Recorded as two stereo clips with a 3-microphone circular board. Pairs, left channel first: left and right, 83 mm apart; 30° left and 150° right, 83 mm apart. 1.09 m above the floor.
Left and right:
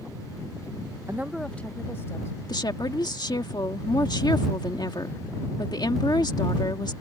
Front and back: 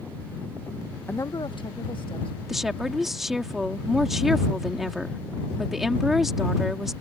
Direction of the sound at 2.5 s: 125° left.